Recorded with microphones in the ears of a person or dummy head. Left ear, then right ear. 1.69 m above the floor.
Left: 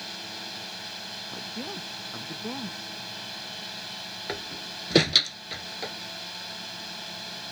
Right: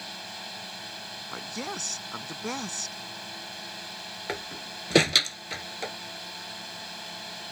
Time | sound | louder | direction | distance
0.0 | a drone | left 2 dB | 10° right (ahead or behind) | ?
1.3 | a woman speaking | right 1 dB | 60° right (ahead or behind) | ?
4.3 | a door slam | right 1 dB | 20° right (ahead or behind) | ?